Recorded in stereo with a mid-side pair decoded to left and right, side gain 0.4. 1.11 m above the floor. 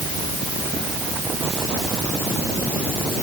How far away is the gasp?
I don't hear a gasp.